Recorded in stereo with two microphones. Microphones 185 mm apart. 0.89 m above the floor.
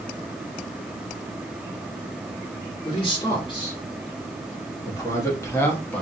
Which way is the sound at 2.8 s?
25° left (ahead or behind).